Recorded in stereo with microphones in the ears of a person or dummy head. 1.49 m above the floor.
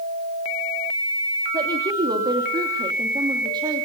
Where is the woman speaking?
25° right (ahead or behind), 3.5 m.